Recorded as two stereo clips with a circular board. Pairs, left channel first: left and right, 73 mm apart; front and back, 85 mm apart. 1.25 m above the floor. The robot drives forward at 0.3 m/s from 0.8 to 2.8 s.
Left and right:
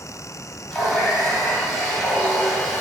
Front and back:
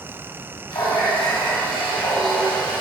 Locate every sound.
0.7 s a running tap: 10° left, 1.1 m; by 2.8 s 20° left, 0.5 m